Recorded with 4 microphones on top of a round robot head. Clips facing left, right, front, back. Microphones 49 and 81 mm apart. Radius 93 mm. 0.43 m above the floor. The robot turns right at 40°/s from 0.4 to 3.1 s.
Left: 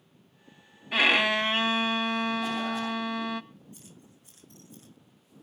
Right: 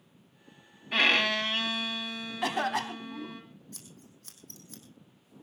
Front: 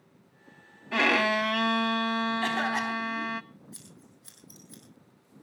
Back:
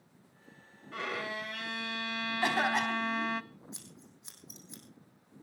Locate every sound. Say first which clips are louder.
0.9 s a violin: left 2 dB, front 13 dB; straight ahead, 0.5 m; by 3.4 s 90° left, 0.5 m
2.4 s a cough: right 1 dB, front 1 dB; 105° right, 3.5 m; by 3.4 s 75° right, 3.5 m
3.7 s scissors: even, front 1 dB; 110° right, 3.5 m